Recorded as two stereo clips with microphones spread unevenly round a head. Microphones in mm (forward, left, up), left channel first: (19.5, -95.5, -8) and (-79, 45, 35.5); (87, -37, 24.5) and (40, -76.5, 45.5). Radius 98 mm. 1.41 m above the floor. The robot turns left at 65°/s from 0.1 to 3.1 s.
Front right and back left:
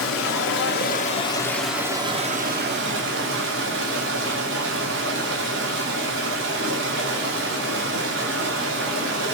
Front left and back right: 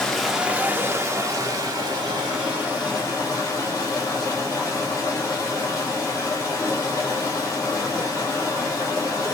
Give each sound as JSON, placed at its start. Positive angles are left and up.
{"t": 0.0, "sound": "running water", "azimuth_deg": -45, "distance_m": 1.0}